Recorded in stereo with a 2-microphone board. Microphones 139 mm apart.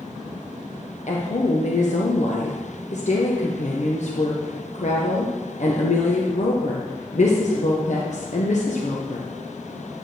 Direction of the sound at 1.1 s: 60° left (ahead or behind).